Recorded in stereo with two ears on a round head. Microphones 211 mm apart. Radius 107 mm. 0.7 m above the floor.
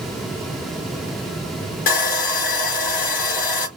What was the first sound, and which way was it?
Sawing, 40° left (ahead or behind).